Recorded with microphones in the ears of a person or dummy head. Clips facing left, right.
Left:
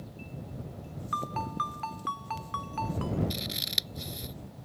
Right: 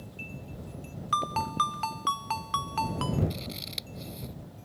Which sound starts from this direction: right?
A ringtone, at 1.1 s.